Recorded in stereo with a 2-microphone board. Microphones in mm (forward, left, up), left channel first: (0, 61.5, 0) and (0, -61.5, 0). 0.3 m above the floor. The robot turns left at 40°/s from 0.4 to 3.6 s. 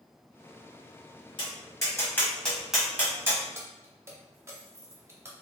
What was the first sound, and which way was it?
Tapping, 40° left (ahead or behind).